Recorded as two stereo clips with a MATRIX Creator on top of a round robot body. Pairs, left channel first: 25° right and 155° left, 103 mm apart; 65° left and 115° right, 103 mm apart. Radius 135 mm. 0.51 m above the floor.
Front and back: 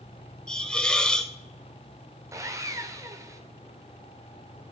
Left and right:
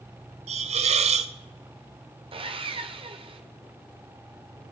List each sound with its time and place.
0.5 s a hiss: 105° right, 0.7 m
2.3 s sawing: 140° right, 1.2 m